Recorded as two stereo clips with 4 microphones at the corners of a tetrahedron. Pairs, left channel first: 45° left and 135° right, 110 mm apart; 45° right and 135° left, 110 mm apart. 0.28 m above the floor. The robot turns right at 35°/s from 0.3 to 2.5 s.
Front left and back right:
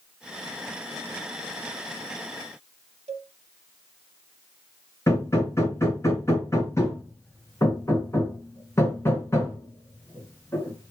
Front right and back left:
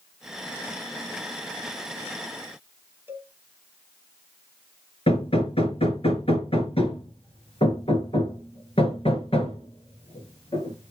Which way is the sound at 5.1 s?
20° right.